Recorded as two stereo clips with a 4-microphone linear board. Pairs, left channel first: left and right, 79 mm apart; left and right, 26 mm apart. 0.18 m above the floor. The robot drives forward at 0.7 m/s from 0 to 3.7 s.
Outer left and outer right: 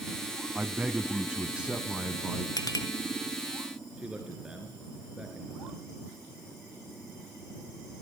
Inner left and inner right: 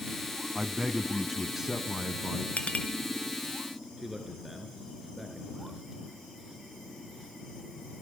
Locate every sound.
0.6 s a man speaking: 15° right (ahead or behind), 1.2 m; by 2.5 s 10° right (ahead or behind), 1.4 m
2.6 s a clink: 55° left (ahead or behind), 1.6 m
4.0 s a man speaking: 10° right (ahead or behind), 2.5 m